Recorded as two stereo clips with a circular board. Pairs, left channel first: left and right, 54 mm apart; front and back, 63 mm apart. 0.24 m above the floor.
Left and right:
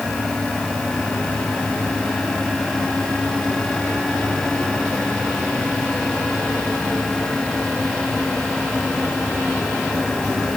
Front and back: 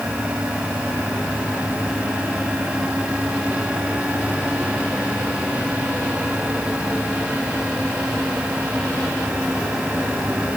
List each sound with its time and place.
Only background noise.